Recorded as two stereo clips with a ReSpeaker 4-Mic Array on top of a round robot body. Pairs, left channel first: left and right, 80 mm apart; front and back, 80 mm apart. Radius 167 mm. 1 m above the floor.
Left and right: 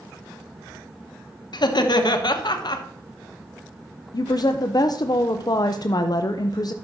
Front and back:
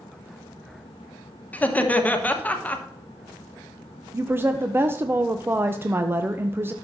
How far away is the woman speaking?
About 0.6 m.